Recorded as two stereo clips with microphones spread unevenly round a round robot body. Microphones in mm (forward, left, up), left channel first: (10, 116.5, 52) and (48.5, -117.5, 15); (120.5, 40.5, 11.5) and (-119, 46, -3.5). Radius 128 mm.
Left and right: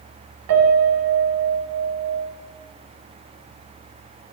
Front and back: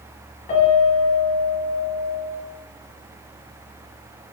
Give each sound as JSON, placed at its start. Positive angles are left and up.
{"t": 0.5, "sound": "a piano", "azimuth_deg": -60, "distance_m": 0.5}